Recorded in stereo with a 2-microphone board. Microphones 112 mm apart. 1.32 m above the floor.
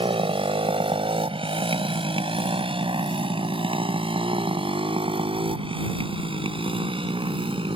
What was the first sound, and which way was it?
A motorcycle, 55° right (ahead or behind).